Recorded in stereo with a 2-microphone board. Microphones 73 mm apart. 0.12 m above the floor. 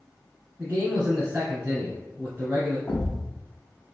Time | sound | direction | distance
0.6 | a man speaking | 25° right (ahead or behind) | 1.6 m
2.9 | a thud | 25° left (ahead or behind) | 0.8 m